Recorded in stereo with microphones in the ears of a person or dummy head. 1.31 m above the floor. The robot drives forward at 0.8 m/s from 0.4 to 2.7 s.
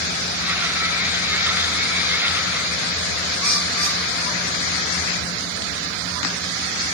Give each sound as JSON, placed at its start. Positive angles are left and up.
{"t": 3.4, "sound": "a bird", "side_deg": 0, "distance_m": 3.5}